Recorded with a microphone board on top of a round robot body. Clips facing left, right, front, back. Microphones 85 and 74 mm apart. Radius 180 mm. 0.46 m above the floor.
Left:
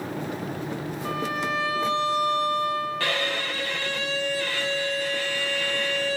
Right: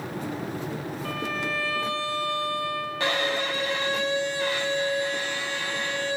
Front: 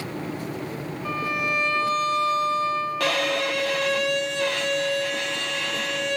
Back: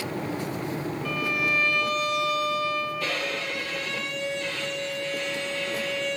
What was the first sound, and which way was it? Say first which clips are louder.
A violin: left 4 dB, front 2 dB; 35° left.